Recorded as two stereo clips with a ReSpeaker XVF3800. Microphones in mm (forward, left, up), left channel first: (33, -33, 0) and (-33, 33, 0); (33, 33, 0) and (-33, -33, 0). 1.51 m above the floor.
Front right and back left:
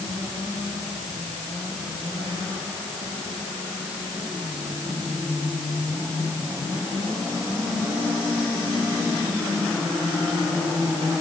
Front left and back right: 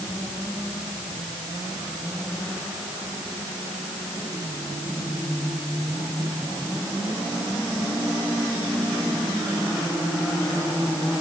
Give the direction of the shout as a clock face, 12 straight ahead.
I don't hear a shout.